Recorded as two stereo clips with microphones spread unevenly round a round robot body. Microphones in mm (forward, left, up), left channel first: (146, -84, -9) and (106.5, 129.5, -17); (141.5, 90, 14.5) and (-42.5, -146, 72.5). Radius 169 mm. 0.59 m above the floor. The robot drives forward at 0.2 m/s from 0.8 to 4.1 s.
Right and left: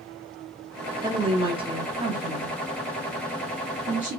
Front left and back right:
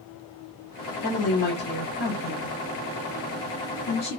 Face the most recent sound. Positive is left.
turn(degrees=85)